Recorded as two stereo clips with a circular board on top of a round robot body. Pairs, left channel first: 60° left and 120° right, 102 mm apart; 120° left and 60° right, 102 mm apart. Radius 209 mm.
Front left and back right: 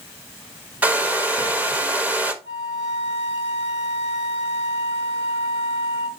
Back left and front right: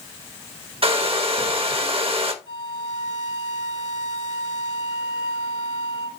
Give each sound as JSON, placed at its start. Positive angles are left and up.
{"t": 0.8, "sound": "a hair dryer", "azimuth_deg": -45, "distance_m": 1.7}
{"t": 2.4, "sound": "a flute", "azimuth_deg": 175, "distance_m": 4.5}